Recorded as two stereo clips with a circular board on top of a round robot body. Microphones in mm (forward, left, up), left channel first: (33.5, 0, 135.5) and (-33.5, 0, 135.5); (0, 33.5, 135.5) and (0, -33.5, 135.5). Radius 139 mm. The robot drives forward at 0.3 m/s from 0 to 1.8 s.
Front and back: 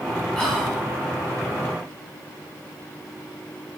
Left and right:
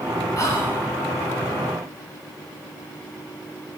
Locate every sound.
0.4 s whispering: 90° left, 1.0 m; by 0.8 s 105° left, 1.0 m